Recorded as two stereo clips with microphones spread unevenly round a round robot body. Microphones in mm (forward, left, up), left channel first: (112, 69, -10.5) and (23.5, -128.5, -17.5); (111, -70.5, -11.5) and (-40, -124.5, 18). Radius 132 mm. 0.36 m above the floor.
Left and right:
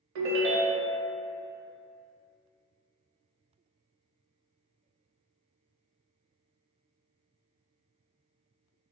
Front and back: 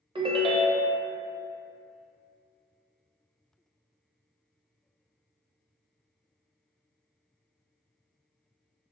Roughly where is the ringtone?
Right.